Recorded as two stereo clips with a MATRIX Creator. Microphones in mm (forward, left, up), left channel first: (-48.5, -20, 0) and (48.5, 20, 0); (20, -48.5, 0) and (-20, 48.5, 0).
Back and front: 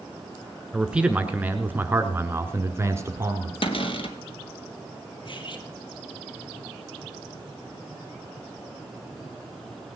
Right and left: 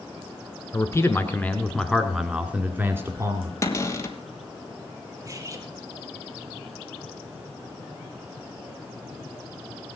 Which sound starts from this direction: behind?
Cutlery clinking, at 5.2 s.